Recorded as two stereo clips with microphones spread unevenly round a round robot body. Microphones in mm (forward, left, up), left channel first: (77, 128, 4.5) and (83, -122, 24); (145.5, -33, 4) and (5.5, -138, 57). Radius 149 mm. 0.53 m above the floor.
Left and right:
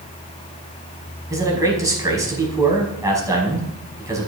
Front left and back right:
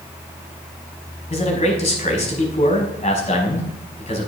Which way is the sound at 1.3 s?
10° right.